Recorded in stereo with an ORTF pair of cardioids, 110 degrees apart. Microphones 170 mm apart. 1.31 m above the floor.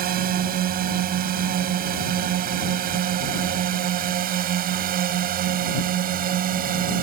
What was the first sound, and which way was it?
A drone, 60° right.